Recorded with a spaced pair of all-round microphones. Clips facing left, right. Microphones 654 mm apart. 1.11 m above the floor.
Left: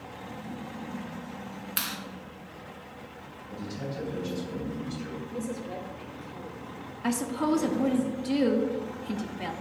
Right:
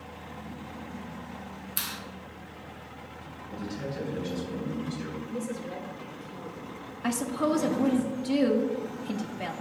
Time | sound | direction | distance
1.8 | a clap | 80° left | 1.1 m
3.5 | a man speaking | 15° left (ahead or behind) | 3.5 m
5.3 | a woman speaking | 45° right (ahead or behind) | 1.6 m
7.0 | a woman speaking | 5° right (ahead or behind) | 0.7 m